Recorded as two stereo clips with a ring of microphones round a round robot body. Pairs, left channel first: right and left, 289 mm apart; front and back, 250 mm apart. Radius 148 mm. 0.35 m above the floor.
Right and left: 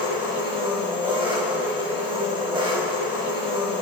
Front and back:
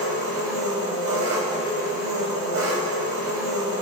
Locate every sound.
0.0 s an engine running: 160° left, 2 m